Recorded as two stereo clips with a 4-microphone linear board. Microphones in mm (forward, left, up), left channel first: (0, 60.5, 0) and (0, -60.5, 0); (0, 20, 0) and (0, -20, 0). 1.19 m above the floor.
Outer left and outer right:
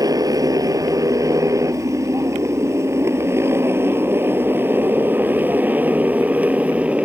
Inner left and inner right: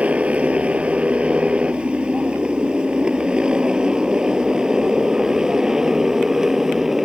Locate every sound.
0.0 s a motorcycle: 30° right (ahead or behind); by 7.1 s 10° right (ahead or behind)